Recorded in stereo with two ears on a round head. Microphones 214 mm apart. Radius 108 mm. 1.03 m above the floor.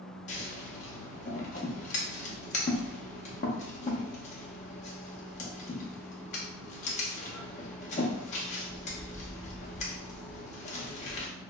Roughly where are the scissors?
Left.